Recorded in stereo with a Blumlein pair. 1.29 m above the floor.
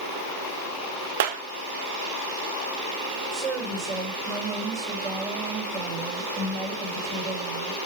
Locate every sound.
1.2 s a clap: 45° right, 1.2 m
3.3 s a woman speaking: 20° right, 6.5 m